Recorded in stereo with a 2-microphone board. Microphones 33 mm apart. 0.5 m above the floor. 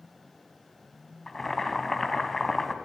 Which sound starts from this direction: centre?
Boiling, at 1.3 s.